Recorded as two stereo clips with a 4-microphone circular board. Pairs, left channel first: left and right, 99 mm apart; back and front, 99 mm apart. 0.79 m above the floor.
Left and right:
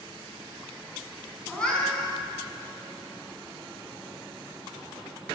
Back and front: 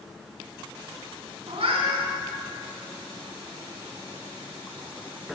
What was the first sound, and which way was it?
A cat meowing, 10° left.